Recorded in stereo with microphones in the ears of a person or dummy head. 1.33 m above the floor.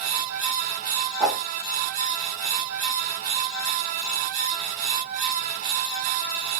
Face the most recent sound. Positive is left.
turn(degrees=-5)  # may be behind; listen again after turning